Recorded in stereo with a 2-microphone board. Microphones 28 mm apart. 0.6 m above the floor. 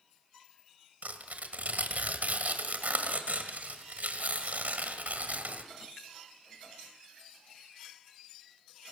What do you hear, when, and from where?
1.0 s tearing paper: 75° right (ahead or behind), 1.9 m